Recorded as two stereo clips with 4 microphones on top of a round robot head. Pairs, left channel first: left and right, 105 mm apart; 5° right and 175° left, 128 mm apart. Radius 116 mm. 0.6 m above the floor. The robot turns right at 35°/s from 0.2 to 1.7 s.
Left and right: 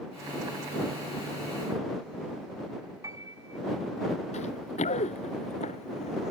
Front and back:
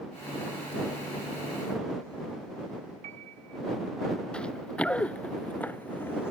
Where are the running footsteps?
75° left; by 6.3 s 65° left.